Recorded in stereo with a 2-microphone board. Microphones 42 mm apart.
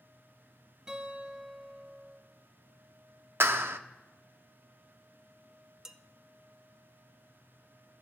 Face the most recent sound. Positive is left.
turn(degrees=-10)  # may be behind; listen again after turning